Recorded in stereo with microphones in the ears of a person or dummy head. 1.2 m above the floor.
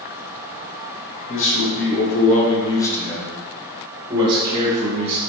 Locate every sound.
1.3 s a man speaking: 65° left (ahead or behind), 1.2 m; by 5.2 s 30° right (ahead or behind), 2 m